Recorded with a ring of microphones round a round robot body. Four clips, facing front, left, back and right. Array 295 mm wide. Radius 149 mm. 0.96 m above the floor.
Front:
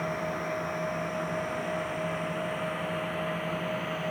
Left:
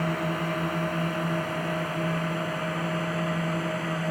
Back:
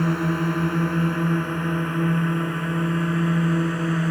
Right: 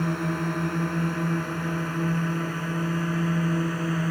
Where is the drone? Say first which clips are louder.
Right 1 dB, back 9 dB; 170° right; by 4.1 s 160° right.